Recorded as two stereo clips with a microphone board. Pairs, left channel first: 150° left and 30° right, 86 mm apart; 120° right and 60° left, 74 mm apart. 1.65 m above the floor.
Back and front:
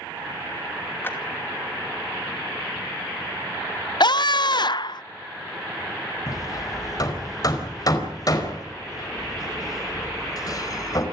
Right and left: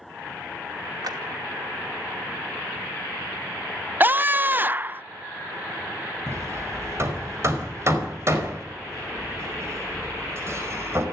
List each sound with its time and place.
1.0 s a clap: 85° left, 2.5 m
4.0 s a scream: 125° left, 0.5 m
6.3 s hammering: 110° left, 4.5 m